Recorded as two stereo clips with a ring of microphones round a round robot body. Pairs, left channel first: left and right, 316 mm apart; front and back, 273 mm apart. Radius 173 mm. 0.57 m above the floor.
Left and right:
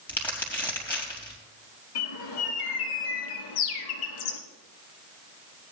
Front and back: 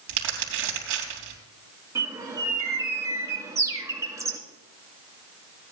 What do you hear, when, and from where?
0.1 s crumpling: 175° left, 4 m
1.9 s a bird: 100° left, 1.8 m